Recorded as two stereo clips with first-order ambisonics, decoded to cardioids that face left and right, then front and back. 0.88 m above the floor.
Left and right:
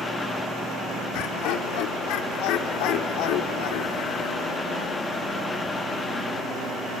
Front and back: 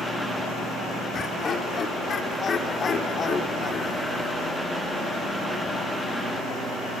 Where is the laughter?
65° left, 2.5 m.